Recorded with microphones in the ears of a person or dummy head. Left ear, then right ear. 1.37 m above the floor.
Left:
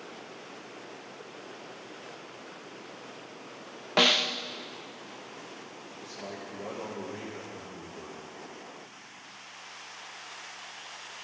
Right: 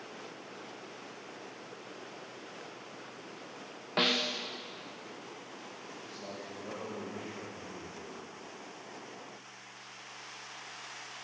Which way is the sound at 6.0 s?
75° left (ahead or behind).